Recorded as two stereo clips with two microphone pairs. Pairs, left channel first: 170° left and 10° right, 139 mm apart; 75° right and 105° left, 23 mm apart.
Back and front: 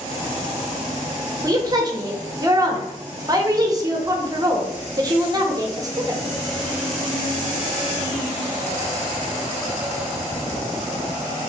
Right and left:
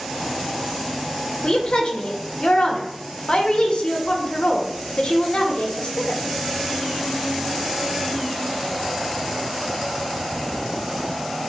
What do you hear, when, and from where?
1.4 s a woman speaking: 65° right, 0.7 m